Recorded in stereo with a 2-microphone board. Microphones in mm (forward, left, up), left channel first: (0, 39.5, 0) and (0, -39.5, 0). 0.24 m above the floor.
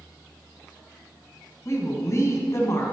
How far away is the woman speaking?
About 2 m.